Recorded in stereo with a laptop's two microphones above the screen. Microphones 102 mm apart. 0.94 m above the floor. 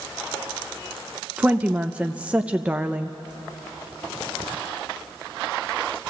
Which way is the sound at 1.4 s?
15° right (ahead or behind).